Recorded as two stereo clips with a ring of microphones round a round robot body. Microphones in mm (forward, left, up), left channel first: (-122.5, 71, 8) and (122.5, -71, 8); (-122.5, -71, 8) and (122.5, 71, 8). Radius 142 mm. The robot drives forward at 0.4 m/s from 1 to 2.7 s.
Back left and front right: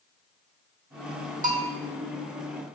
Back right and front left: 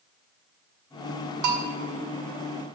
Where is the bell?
30° left, 1.2 m; by 1.7 s 35° left, 1.1 m.